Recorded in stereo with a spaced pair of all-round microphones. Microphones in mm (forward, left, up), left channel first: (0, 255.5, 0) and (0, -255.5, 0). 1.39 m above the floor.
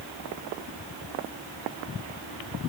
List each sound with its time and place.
Only background noise.